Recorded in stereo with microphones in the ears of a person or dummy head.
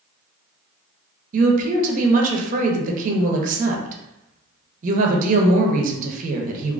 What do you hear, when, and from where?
1.3 s a woman speaking: 45° right (ahead or behind), 0.9 m